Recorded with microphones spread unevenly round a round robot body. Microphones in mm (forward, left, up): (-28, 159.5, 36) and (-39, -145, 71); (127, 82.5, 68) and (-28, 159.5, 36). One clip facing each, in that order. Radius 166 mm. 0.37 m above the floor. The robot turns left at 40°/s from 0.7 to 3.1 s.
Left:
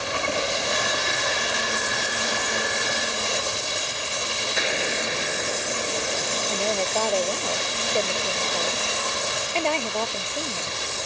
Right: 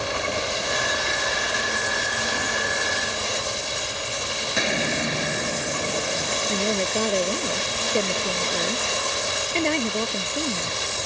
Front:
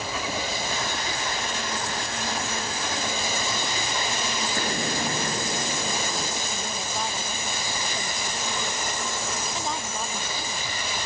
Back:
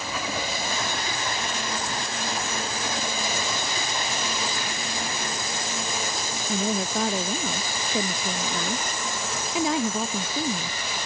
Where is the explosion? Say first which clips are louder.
Right 3 dB, front 5 dB; 95° right.